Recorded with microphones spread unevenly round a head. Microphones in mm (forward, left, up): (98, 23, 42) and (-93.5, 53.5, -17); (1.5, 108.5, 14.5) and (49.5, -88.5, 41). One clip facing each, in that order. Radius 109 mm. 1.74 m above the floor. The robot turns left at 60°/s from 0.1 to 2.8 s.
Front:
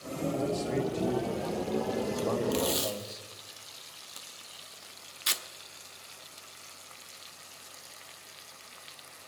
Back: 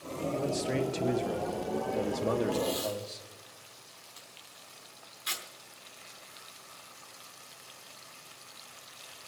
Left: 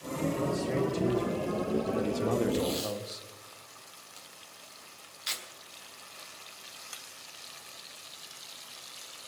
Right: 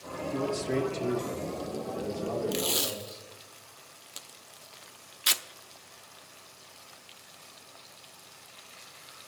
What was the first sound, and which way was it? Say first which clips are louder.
A man speaking: even, right 4 dB; 135° right.